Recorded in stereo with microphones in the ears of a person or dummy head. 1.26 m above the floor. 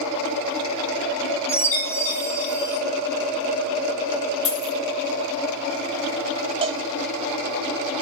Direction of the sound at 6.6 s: 35° right (ahead or behind).